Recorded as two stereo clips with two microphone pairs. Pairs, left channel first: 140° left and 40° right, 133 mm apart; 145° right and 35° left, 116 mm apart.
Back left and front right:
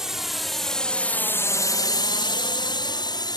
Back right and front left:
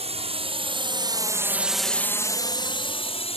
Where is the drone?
45° left; by 3.4 s 165° right.